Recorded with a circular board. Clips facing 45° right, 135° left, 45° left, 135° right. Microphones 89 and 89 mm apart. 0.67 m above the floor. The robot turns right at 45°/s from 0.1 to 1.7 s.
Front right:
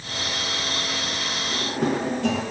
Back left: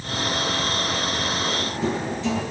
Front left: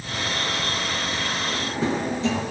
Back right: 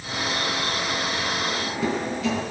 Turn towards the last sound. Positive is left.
turn(degrees=-15)